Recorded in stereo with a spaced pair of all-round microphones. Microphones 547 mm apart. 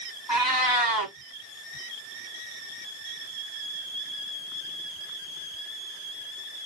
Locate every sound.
0.3 s a cat meowing: 40° left (ahead or behind), 1.7 m